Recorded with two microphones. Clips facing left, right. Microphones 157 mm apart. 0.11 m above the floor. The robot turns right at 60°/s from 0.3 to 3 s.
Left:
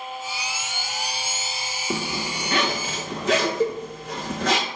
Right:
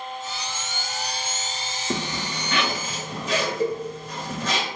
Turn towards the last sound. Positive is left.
turn(degrees=20)  # may be behind; listen again after turning